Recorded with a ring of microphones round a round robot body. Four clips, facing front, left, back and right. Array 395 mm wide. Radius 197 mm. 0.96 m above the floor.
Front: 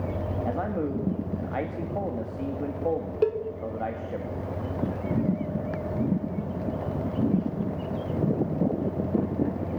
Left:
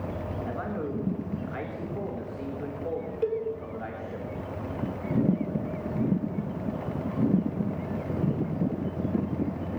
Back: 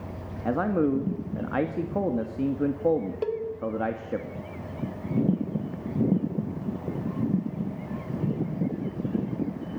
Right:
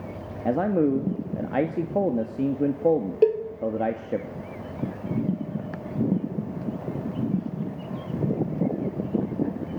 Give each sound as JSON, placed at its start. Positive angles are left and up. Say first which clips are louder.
{"t": 0.5, "sound": "a man speaking", "louder": "right 14 dB, back 7 dB", "azimuth_deg": -115, "distance_m": 1.7}
{"t": 3.2, "sound": "a cowbell", "louder": "right 8 dB, front 4 dB", "azimuth_deg": -60, "distance_m": 2.0}